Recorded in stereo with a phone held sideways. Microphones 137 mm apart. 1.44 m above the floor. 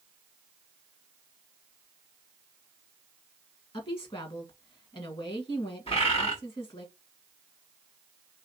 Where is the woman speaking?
40° left (ahead or behind), 1.7 m.